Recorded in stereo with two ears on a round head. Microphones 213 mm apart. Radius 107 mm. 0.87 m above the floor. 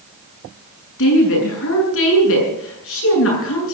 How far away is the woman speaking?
About 8 m.